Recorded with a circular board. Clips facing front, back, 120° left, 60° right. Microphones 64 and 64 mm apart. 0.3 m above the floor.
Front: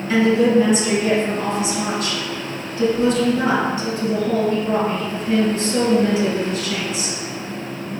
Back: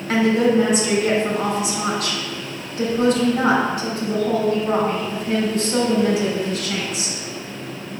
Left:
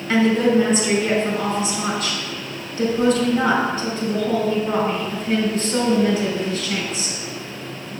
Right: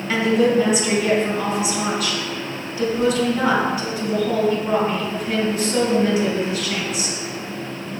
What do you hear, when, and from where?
0.1 s a woman speaking: 145° right, 2.5 m